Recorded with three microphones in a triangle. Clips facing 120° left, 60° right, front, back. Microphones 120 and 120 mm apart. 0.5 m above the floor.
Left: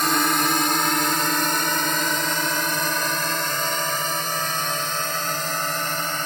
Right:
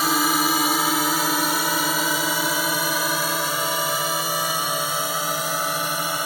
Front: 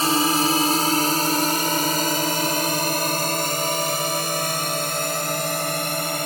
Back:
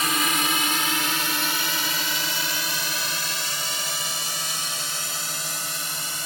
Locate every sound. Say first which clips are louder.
0.0 s a drone: even, front 6 dB; 20° left